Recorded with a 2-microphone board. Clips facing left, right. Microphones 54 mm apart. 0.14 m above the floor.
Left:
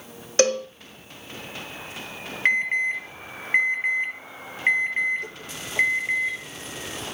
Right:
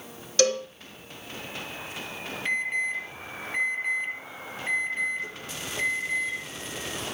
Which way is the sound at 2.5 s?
60° left (ahead or behind).